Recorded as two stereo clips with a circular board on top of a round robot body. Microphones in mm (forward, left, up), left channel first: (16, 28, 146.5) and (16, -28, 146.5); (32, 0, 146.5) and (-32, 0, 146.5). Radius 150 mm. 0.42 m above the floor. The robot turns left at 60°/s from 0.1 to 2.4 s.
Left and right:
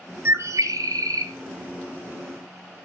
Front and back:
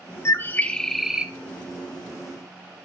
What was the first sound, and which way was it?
A bird, 45° right.